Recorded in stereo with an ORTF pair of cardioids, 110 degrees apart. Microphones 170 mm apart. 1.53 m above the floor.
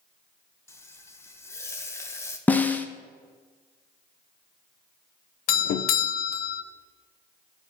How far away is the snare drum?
About 0.7 m.